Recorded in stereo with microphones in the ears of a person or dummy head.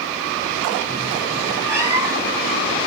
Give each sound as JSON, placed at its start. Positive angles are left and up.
{"t": 1.7, "sound": "a cat meowing", "side_deg": -15, "distance_m": 1.6}